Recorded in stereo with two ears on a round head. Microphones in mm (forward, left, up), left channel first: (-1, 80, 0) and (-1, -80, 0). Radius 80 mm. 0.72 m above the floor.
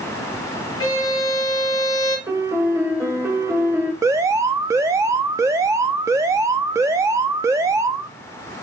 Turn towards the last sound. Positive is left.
turn(degrees=-15)  # may be behind; listen again after turning